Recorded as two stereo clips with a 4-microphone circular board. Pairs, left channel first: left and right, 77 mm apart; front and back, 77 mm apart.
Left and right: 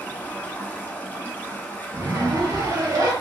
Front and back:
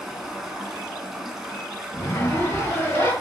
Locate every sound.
0.0 s running water: 105° left, 0.9 m
1.9 s a zipper: 50° right, 1.0 m